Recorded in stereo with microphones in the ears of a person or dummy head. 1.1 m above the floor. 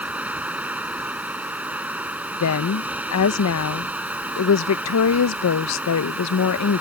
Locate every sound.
0.0 s running water: 10° right (ahead or behind)
2.4 s a woman speaking: 80° left